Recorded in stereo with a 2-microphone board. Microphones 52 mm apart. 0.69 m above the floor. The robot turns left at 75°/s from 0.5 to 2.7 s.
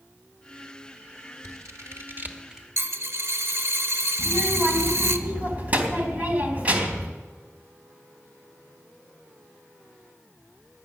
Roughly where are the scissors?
Right.